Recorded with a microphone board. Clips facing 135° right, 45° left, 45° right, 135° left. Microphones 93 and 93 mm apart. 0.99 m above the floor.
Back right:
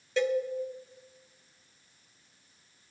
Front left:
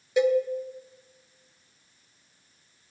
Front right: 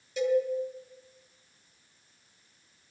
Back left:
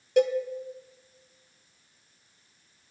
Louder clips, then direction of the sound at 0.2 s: Front left 6 dB, back left 3 dB; 120° left.